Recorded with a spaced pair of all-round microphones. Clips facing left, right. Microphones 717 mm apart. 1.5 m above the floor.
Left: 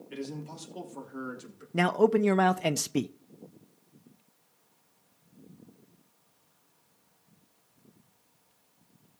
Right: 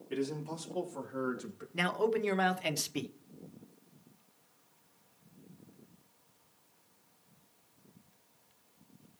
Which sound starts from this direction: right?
A man speaking, at 0.1 s.